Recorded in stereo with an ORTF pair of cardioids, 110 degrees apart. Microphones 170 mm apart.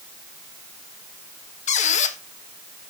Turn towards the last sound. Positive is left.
turn(degrees=45)